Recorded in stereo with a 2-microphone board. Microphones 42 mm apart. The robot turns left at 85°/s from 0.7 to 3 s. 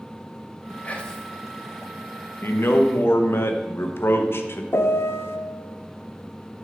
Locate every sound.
0.8 s whispering: 35° left, 1.0 m; by 1.3 s 5° right, 1.0 m
2.4 s a man speaking: 120° left, 0.8 m; by 4.6 s 70° left, 0.8 m
4.7 s a piano: 70° left (ahead or behind), 0.6 m